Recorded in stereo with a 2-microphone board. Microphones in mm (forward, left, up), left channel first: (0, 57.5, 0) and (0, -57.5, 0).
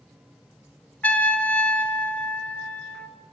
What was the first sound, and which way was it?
A trumpet, 15° left (ahead or behind).